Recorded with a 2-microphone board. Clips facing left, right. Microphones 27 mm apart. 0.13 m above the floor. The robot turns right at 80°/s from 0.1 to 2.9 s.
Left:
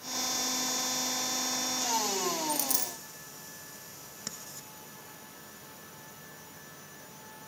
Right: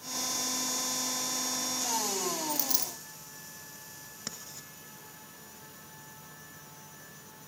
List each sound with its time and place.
2.5 s a dropped coin: 170° right, 2.5 m; by 2.9 s 135° right, 2.5 m
4.3 s writing: 5° right (ahead or behind), 1.4 m